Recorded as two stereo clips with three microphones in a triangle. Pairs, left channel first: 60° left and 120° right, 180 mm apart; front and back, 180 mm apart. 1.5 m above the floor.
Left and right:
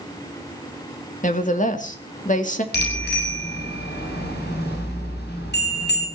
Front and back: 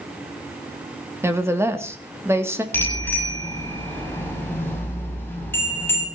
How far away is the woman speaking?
About 2.5 m.